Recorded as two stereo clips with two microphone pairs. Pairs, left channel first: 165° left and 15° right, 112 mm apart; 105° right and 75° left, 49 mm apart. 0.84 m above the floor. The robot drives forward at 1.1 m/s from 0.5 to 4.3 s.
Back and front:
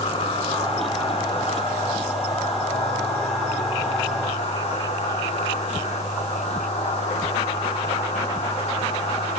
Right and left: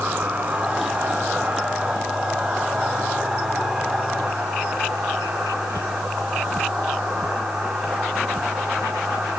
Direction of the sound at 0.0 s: 130° left.